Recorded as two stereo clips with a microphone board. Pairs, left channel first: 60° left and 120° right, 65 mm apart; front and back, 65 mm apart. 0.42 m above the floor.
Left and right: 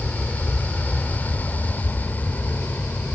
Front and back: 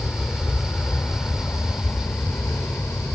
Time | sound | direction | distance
0.0 | an aircraft | 10° left | ?